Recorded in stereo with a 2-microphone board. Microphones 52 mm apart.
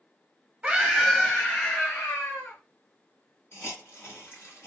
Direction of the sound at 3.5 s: 45° left (ahead or behind).